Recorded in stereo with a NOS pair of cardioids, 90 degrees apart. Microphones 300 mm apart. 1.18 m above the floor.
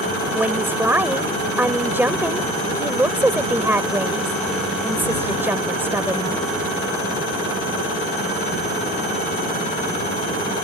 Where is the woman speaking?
5° right.